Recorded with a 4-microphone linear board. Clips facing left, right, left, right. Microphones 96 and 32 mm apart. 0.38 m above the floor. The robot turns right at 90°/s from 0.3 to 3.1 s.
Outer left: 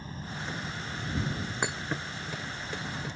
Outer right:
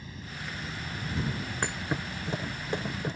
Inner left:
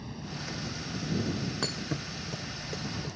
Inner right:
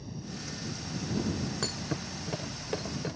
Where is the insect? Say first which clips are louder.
Outer left 3 dB, inner left 2 dB; 140° left; by 3.2 s 35° left.